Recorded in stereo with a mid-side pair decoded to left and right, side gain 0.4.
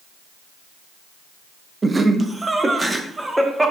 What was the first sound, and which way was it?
Laughter, 30° right.